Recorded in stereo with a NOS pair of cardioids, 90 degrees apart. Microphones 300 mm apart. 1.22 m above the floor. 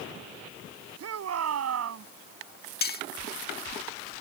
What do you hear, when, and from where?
1.0 s a shout: 60° right
2.8 s cutlery clinking: 35° left